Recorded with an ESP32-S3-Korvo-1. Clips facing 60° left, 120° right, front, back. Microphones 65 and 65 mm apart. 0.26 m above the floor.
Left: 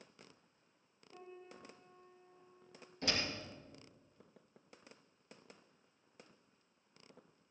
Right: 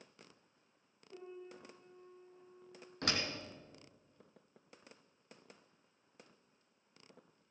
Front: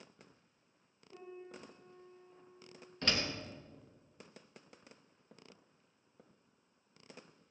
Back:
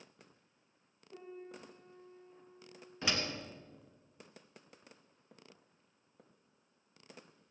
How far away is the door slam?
About 2.5 m.